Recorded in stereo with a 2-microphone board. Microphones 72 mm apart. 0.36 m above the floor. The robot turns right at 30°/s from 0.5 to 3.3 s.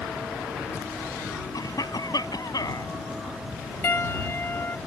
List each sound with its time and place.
1.5 s a cough: 70° left; by 2.9 s 110° left
3.8 s a piano: 35° left (ahead or behind)